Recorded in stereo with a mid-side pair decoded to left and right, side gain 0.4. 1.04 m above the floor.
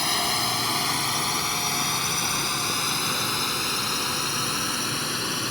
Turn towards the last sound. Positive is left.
turn(degrees=20)